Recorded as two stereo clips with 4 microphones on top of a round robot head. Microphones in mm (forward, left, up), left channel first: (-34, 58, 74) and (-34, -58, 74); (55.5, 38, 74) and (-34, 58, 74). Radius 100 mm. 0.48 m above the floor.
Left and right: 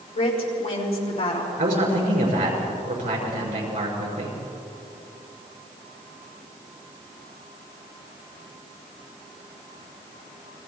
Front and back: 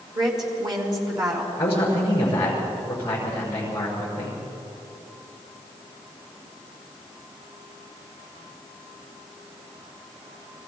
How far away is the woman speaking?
About 5.5 m.